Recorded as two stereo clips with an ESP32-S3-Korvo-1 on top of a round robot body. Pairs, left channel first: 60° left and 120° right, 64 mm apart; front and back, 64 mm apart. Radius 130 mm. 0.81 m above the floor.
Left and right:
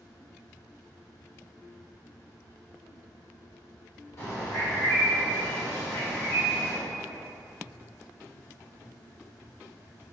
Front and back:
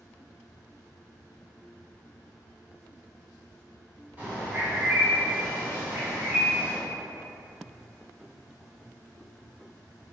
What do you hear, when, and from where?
4.2 s a bird: 110° left, 0.8 m